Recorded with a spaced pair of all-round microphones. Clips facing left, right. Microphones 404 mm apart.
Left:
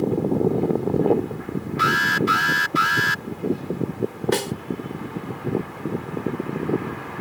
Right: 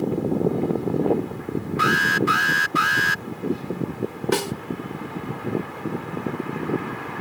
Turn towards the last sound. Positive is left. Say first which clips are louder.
# even
turn(degrees=-20)  # may be behind; listen again after turning